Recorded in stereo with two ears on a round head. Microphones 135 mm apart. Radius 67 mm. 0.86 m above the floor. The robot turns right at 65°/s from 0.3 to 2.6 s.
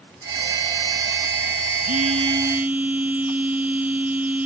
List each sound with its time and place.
1.9 s a phone buzzing: 60° right; by 4.5 s 10° right